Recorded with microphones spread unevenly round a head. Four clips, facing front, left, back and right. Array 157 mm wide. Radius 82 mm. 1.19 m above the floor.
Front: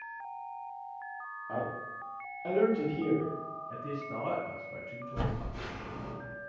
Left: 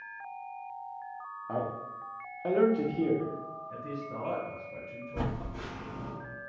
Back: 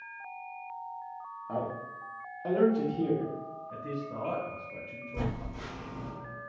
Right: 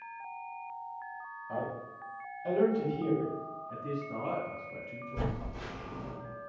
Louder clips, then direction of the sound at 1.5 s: Left 3 dB, back 1 dB; 110° left.